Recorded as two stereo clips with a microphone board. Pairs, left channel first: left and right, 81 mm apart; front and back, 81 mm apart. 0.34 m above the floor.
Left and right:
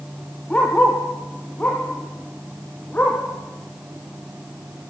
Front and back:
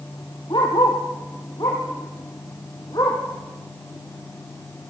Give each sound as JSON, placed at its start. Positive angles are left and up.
{"t": 0.5, "sound": "a dog barking", "azimuth_deg": 15, "distance_m": 4.5}